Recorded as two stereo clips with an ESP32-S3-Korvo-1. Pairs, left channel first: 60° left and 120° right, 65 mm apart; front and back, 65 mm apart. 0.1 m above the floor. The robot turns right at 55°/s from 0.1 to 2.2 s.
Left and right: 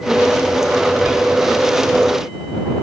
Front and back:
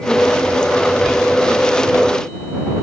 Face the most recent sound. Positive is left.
No sound to turn to.